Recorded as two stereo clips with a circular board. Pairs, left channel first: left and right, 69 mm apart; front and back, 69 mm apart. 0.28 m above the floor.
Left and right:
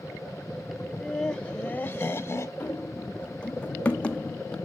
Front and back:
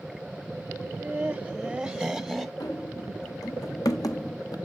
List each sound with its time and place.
0.8 s laughter: 160° right, 1.0 m; by 2.5 s 85° left, 1.2 m
2.6 s running footsteps: 20° left, 1.9 m; by 4.5 s 15° left, 0.7 m